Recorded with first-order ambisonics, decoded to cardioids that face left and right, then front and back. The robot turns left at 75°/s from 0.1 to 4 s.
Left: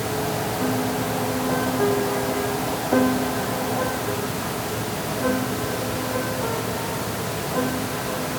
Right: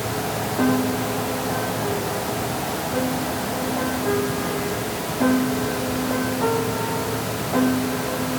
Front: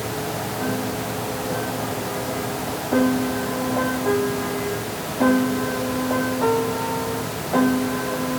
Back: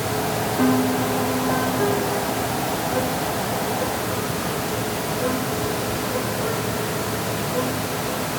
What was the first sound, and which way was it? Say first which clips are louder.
A piano: right 2 dB, back 8 dB; 130° right.